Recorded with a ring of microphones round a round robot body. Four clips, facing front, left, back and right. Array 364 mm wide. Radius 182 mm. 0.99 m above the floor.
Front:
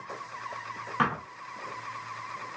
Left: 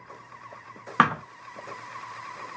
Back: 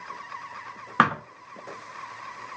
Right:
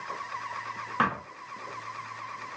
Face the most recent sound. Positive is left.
turn(degrees=140)